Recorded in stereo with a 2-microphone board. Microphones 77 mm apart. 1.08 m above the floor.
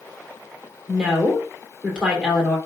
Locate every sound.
0.9 s a woman speaking: 10° right (ahead or behind), 3 m